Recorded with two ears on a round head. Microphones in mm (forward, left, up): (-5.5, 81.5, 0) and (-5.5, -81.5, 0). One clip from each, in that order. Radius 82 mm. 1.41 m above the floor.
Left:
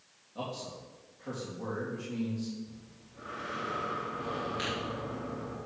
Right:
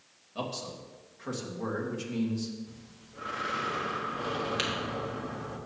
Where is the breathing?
55° right (ahead or behind), 1.1 m.